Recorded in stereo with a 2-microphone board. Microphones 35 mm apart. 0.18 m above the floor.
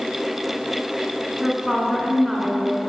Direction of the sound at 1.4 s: 5° right (ahead or behind).